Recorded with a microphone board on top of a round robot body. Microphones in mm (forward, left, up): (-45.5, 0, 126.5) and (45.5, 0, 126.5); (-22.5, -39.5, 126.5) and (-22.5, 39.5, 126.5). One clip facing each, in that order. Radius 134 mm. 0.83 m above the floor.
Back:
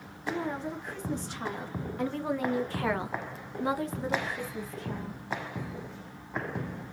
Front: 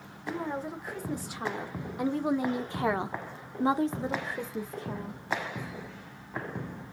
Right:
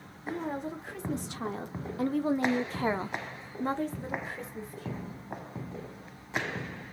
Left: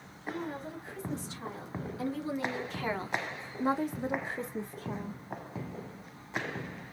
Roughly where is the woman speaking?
Right.